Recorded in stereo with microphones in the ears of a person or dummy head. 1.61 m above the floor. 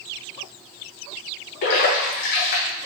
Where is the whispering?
I don't hear whispering.